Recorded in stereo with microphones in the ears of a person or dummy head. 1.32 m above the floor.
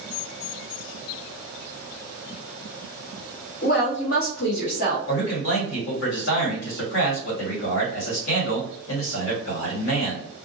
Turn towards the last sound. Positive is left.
turn(degrees=65)  # may be behind; listen again after turning